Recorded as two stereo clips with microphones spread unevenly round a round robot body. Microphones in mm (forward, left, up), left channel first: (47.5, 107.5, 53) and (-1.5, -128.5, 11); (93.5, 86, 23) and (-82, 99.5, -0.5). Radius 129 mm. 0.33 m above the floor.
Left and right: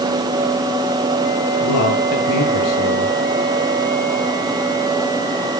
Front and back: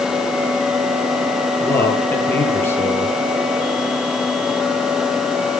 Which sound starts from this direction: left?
A man speaking, at 1.6 s.